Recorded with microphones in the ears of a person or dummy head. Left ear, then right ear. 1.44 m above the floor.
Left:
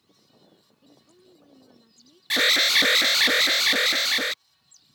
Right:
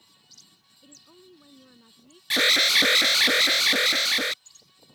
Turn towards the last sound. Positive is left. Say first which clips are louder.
# even
turn(degrees=15)  # may be behind; listen again after turning